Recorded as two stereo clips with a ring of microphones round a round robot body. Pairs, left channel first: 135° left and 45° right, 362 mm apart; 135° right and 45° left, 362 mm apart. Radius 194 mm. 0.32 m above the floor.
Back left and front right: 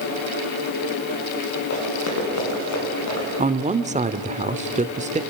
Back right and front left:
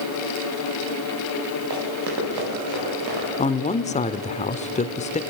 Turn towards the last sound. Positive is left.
turn(degrees=-90)